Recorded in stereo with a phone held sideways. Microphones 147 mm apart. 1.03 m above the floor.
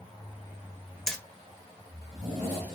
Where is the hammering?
5° left (ahead or behind), 1.6 m.